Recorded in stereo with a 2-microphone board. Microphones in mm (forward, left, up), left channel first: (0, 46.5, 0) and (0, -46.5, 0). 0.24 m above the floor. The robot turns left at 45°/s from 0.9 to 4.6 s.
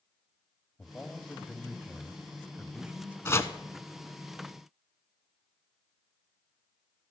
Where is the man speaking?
15° left (ahead or behind), 1.1 m; by 3.1 s 15° right (ahead or behind), 1.1 m.